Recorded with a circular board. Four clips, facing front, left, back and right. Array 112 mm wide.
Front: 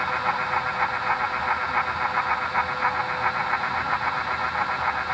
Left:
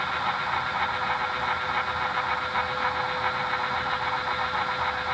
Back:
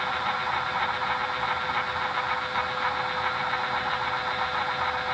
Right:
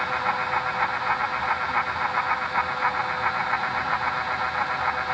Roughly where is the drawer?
I don't hear a drawer.